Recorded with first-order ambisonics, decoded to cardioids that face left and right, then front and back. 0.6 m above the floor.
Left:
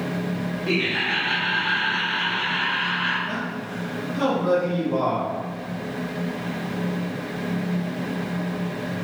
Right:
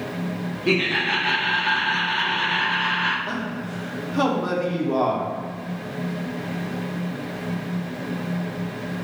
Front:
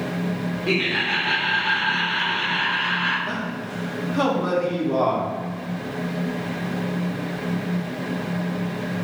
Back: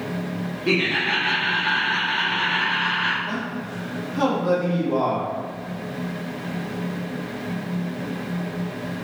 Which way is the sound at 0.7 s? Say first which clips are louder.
Right 2 dB, back 1 dB; 115° right.